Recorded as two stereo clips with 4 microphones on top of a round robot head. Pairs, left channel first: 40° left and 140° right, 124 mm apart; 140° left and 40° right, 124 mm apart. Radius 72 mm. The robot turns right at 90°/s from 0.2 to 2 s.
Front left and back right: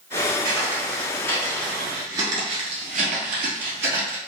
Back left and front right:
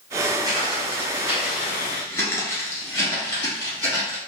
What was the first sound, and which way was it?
Footsteps, 95° right.